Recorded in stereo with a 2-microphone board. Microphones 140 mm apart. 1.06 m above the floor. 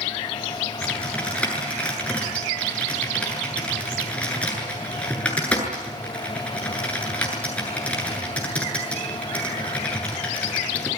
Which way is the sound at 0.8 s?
10° left (ahead or behind).